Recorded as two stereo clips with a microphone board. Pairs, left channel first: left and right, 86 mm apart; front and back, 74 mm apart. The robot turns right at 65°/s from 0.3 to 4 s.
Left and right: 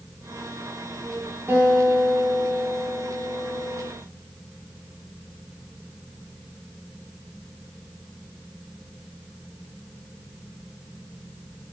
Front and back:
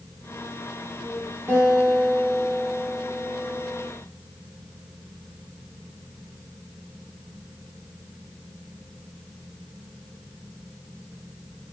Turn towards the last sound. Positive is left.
turn(degrees=25)